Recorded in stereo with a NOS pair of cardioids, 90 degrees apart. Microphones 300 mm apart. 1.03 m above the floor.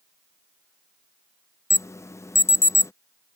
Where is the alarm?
10° left.